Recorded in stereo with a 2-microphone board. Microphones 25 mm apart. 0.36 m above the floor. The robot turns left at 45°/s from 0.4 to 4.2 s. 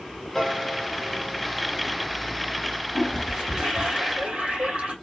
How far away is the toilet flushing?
About 2.5 m.